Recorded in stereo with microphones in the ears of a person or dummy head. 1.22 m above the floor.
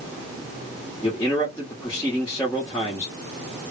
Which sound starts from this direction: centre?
A man speaking, at 1.0 s.